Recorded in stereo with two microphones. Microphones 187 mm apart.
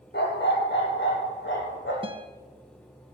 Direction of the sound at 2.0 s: 30° right (ahead or behind).